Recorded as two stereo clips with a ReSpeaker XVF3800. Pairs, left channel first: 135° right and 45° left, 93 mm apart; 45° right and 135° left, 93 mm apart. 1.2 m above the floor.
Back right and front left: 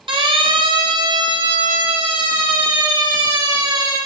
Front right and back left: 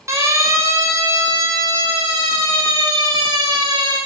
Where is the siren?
75° left, 8 m; by 4.0 s 90° left, 11 m.